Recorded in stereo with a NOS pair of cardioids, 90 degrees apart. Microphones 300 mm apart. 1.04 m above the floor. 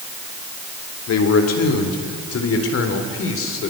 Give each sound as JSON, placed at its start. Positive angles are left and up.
{"t": 1.1, "sound": "a man speaking", "azimuth_deg": 60, "distance_m": 4.0}